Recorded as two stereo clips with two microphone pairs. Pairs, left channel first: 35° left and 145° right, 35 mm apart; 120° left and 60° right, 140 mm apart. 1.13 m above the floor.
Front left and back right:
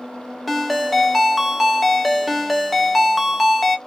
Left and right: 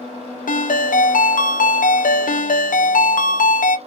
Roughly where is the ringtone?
Behind left.